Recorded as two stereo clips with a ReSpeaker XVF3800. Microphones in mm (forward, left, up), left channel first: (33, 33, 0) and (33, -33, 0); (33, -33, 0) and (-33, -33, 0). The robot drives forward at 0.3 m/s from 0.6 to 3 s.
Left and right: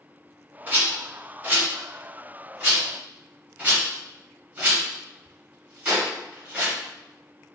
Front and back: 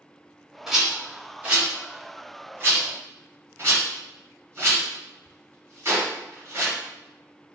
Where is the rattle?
105° right, 1.0 m; by 6.8 s 150° right, 1.3 m.